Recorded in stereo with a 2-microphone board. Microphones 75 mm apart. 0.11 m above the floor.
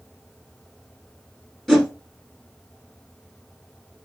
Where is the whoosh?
5° right (ahead or behind), 1.4 m.